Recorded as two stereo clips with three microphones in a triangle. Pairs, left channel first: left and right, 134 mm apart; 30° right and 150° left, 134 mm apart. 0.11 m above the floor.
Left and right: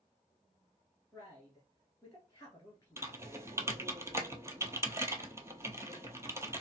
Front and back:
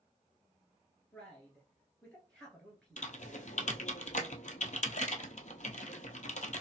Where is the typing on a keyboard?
20° right, 0.7 m.